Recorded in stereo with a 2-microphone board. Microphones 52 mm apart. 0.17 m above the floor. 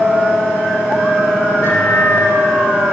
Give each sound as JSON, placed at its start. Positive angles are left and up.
{"t": 1.6, "sound": "a microwave", "side_deg": 65, "distance_m": 5.0}